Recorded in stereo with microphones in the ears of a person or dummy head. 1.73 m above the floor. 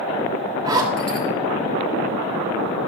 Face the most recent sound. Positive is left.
turn(degrees=-25)  # may be behind; listen again after turning